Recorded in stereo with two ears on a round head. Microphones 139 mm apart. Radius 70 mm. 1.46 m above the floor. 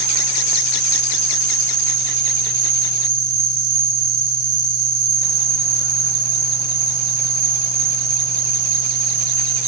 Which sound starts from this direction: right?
An insect, at 0.0 s.